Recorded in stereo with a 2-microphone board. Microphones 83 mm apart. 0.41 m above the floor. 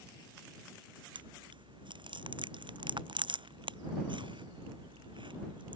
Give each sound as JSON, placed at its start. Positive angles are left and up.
{"t": 1.1, "sound": "chewing", "side_deg": -65}